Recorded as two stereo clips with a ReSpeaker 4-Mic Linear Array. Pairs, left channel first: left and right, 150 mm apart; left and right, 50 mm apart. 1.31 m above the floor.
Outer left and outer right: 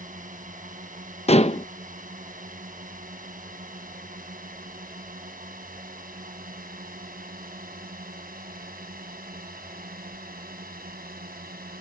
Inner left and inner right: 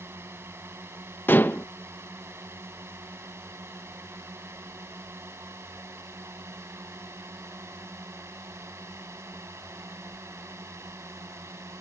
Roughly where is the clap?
No clap in this recording.